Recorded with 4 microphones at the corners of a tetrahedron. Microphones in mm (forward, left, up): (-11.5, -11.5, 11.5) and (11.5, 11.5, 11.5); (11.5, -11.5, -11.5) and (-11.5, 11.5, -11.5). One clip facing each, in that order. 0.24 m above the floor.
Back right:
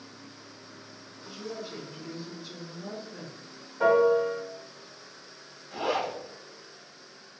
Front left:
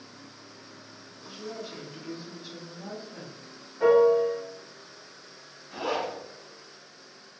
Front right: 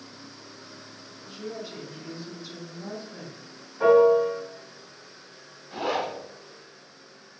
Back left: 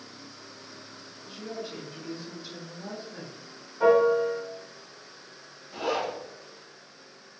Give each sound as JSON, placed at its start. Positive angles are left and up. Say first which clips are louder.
{"t": 1.3, "sound": "a woman speaking", "louder": "even, front right 1 dB", "azimuth_deg": 90, "distance_m": 1.1}
{"t": 3.8, "sound": "a piano", "louder": "front left 2 dB, front right 3 dB", "azimuth_deg": -130, "distance_m": 1.1}
{"t": 5.7, "sound": "a zipper", "louder": "back right 1 dB, front right 1 dB", "azimuth_deg": -60, "distance_m": 1.5}